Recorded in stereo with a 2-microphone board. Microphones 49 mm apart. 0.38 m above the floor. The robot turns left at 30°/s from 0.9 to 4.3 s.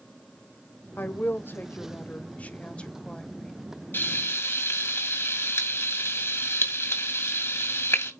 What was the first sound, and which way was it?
A woman speaking, 90° left.